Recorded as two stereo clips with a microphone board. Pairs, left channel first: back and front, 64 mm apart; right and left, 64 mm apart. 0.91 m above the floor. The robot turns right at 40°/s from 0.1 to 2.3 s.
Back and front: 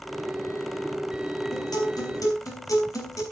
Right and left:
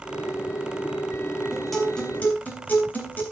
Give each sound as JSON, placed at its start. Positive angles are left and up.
{"t": 1.5, "sound": "a guitar", "azimuth_deg": 175, "distance_m": 3.5}